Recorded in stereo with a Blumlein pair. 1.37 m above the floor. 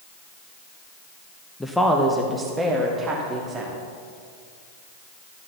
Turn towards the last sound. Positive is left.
turn(degrees=-15)